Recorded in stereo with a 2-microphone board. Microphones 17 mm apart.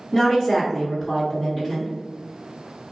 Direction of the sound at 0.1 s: 40° left (ahead or behind).